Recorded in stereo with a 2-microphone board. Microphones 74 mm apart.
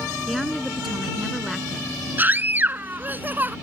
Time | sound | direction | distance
0.3 | a woman speaking | centre (ahead or behind) | ?
2.2 | a scream | 25° right (ahead or behind) | ?